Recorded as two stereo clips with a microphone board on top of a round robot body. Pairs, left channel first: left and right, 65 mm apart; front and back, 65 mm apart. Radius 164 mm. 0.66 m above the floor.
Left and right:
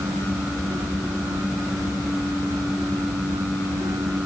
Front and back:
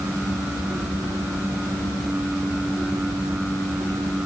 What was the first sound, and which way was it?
Only background noise.